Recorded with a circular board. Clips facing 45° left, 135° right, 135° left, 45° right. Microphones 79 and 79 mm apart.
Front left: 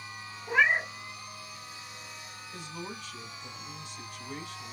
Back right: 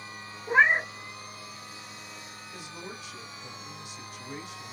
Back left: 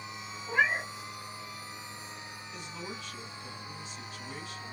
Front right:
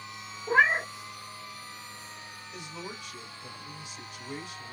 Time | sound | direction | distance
0.5 | a cat meowing | 75° right | 0.5 m
2.5 | a man speaking | 85° right | 1.4 m